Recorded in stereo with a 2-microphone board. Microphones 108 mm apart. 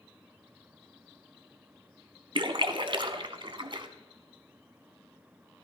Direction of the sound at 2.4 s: 50° right (ahead or behind).